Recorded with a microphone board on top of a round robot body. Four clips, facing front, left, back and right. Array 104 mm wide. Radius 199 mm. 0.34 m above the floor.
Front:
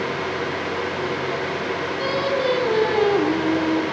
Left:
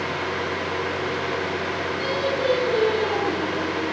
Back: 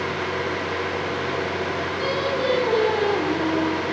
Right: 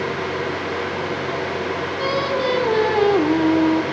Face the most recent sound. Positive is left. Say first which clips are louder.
# right 3 dB, front 2 dB
turn(degrees=-85)